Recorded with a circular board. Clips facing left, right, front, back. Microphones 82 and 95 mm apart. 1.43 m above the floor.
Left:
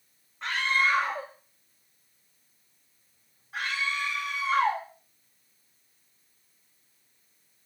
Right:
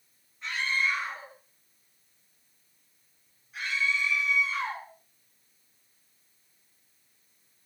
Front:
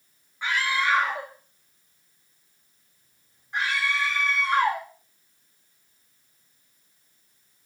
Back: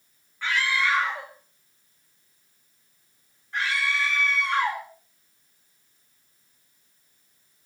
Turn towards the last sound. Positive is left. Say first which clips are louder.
# left 4 dB, even
turn(degrees=70)